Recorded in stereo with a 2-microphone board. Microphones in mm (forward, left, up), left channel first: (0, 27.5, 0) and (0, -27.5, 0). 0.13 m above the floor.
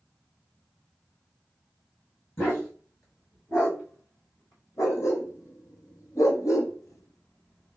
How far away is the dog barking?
About 3 m.